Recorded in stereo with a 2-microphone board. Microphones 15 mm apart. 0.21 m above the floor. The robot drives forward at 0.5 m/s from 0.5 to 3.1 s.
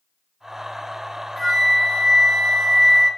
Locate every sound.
1.4 s a flute: 20° left (ahead or behind), 1.4 m